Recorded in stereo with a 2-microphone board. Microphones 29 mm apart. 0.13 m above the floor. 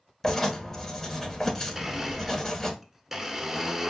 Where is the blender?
15° right (ahead or behind), 0.7 m.